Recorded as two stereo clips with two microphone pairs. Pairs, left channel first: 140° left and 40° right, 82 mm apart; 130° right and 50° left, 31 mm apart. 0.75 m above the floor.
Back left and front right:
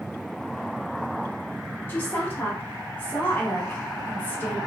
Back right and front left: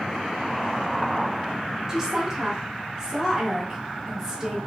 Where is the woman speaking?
100° left, 1.0 m.